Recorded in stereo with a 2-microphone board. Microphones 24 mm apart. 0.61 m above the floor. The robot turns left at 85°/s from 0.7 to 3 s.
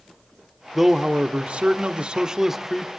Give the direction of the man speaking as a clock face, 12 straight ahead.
12 o'clock.